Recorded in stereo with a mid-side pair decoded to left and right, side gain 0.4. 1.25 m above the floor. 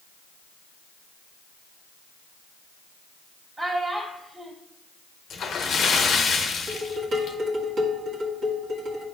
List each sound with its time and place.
3.6 s a child speaking: 40° right, 1.9 m
5.3 s a splash: 65° left, 1.1 m
6.7 s dishes clattering: 70° right, 1.7 m